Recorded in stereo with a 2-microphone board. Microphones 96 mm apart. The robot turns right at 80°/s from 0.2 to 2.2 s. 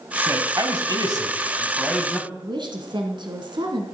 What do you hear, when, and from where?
0.2 s a man speaking: 150° right, 2 m; by 2.2 s 5° left, 2 m
2.3 s a woman speaking: 55° right (ahead or behind), 2.5 m